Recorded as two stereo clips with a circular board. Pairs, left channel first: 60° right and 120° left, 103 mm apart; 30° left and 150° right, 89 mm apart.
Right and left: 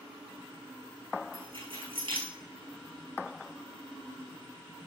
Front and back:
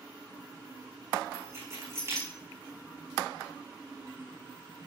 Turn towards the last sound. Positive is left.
turn(degrees=155)